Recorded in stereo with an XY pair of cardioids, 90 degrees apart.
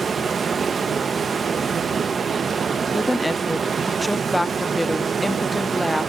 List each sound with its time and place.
0.0 s running water: 50° right, 0.8 m
2.9 s a woman speaking: 5° left, 0.7 m